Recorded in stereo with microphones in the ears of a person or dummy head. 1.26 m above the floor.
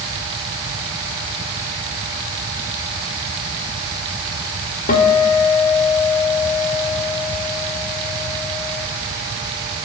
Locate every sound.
4.9 s a guitar: 55° left (ahead or behind), 1.7 m